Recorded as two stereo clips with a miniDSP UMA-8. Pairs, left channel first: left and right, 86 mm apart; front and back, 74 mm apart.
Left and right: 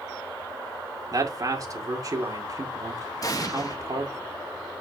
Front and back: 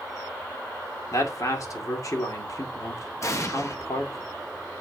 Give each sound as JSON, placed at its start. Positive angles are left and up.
{"t": 1.1, "sound": "a man speaking", "azimuth_deg": -45, "distance_m": 2.5}
{"t": 3.2, "sound": "an explosion", "azimuth_deg": 45, "distance_m": 1.1}